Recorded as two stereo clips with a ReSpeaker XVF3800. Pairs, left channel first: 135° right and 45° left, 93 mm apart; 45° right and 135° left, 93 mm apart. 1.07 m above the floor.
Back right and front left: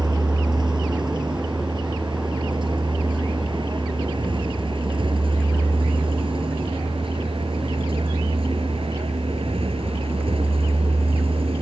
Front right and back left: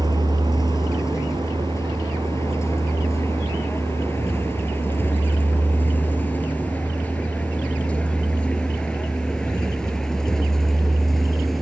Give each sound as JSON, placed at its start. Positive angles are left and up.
{"t": 0.0, "sound": "a vehicle", "azimuth_deg": 5}